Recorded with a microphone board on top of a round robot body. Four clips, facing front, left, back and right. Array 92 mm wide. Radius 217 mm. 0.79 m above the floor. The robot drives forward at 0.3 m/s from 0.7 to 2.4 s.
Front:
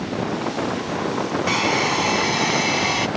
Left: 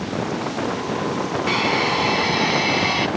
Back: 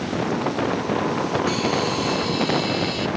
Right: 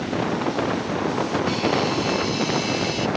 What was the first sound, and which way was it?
A hair dryer, 45° left.